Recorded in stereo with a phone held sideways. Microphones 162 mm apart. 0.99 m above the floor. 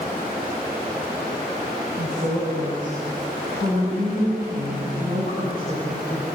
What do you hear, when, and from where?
2.0 s a woman speaking: 50° right (ahead or behind), 7.5 m; by 6.3 s 75° right (ahead or behind), 7 m